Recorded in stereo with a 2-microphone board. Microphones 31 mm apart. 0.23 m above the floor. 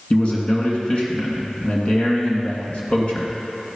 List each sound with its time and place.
0.1 s a man speaking: 40° left (ahead or behind), 2.5 m